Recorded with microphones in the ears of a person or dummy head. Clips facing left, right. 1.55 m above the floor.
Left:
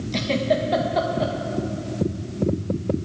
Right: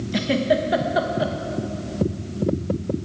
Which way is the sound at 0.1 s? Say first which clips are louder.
Right 2 dB; 10° right (ahead or behind).